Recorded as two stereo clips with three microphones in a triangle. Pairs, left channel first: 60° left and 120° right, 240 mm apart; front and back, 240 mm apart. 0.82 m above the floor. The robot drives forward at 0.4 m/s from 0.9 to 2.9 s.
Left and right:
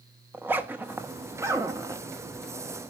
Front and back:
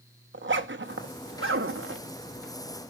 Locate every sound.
0.3 s a zipper: 160° left, 1.1 m; by 2.1 s 165° left, 1.5 m